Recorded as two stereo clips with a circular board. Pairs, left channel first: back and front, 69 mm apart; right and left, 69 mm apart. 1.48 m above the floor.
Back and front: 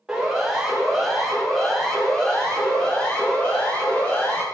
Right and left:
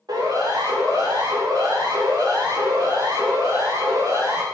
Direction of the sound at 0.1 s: 85° left.